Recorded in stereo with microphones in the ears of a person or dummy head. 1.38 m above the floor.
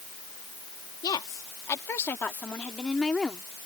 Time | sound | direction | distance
1.0 | a woman speaking | 25° left (ahead or behind) | ?